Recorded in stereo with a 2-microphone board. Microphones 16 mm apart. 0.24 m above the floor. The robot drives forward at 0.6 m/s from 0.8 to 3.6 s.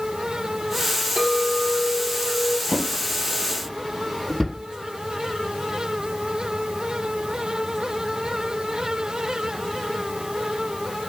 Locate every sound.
1.2 s a clink: 60° right (ahead or behind), 3 m; by 2.6 s 70° right (ahead or behind), 2.5 m
2.7 s a drawer: 10° right (ahead or behind), 4 m